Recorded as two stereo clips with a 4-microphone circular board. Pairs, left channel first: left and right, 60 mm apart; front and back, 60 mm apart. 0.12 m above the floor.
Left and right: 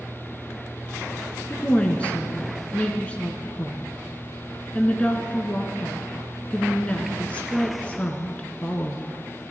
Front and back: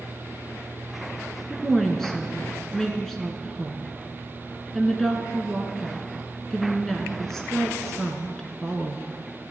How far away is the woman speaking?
About 1.1 m.